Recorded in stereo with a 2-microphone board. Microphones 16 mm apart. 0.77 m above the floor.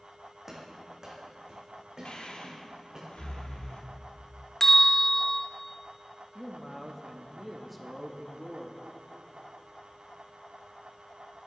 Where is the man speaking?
Centre (ahead or behind), 0.8 m.